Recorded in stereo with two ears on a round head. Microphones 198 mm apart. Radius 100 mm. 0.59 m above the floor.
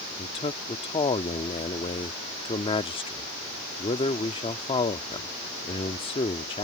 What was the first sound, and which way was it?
A man speaking, 25° left (ahead or behind).